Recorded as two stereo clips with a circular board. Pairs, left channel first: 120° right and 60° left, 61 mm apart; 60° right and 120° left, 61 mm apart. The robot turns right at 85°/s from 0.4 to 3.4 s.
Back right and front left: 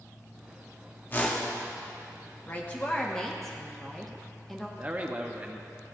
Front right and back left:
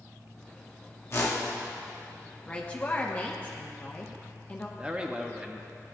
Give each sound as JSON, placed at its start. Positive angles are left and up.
{"t": 1.1, "sound": "a whoosh", "azimuth_deg": -80, "distance_m": 1.0}
{"t": 2.5, "sound": "a woman speaking", "azimuth_deg": -115, "distance_m": 0.8}
{"t": 4.8, "sound": "a man speaking", "azimuth_deg": 65, "distance_m": 0.7}